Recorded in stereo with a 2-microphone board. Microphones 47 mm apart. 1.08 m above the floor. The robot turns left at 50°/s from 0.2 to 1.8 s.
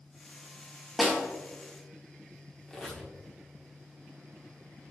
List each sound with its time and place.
1.0 s a snare drum: 5° right (ahead or behind), 1.2 m; by 1.2 s 5° left (ahead or behind), 1.2 m
2.7 s a squeak: 10° left (ahead or behind), 1.1 m